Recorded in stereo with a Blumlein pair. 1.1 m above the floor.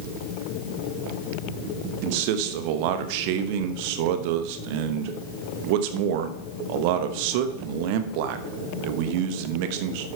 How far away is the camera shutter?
I don't hear a camera shutter.